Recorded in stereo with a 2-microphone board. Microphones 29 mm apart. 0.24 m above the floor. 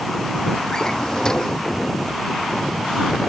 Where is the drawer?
25° left (ahead or behind).